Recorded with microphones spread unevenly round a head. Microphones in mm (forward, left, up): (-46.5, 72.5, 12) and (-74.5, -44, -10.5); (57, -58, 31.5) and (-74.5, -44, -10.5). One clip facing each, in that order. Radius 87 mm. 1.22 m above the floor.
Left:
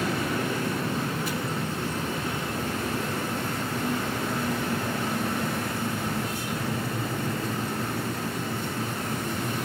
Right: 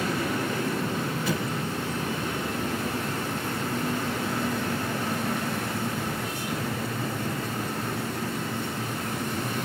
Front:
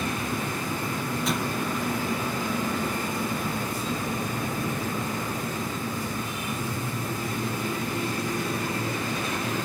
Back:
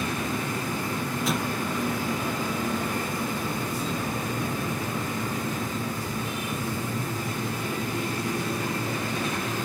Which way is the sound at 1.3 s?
100° right.